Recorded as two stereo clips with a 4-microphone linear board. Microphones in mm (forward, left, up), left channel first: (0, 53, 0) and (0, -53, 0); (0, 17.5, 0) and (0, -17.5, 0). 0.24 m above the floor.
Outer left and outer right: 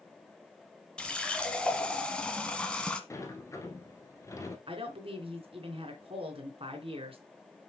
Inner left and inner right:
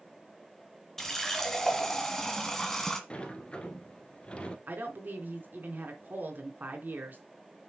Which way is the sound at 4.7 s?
60° right (ahead or behind).